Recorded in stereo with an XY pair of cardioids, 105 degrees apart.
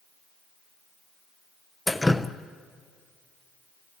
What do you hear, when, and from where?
1.9 s dripping: 10° left, 0.9 m